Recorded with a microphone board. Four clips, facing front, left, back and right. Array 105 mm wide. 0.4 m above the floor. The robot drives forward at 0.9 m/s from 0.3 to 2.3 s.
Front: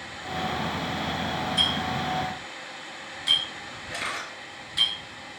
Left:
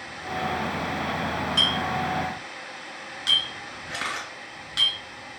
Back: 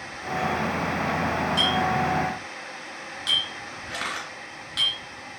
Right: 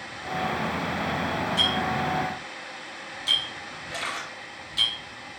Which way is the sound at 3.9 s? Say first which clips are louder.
Left 1 dB, back 1 dB; 135° left.